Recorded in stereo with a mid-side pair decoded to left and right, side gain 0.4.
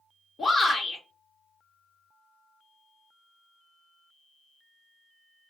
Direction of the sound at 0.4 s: 45° left.